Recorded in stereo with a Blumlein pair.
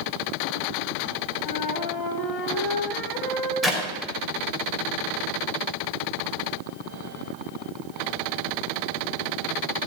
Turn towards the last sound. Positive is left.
turn(degrees=0)